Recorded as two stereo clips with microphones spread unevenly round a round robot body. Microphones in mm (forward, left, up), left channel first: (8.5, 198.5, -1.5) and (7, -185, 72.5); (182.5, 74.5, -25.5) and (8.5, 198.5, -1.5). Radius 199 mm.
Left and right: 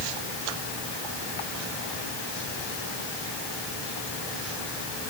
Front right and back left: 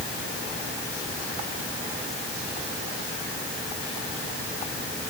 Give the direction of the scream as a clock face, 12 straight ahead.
No scream in this recording.